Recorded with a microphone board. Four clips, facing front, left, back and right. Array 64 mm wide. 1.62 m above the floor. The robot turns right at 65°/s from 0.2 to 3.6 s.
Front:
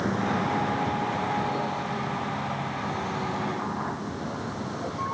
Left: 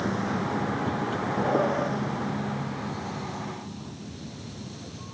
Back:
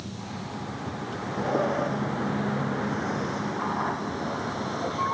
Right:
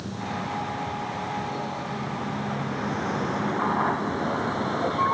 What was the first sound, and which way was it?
A vehicle, 35° left.